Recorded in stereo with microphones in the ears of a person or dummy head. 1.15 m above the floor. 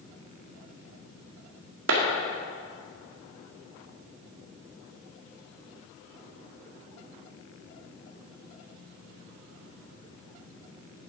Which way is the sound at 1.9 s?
70° right (ahead or behind).